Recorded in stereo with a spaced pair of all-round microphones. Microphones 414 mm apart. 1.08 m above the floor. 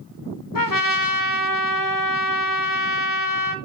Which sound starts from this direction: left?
A trumpet, at 0.6 s.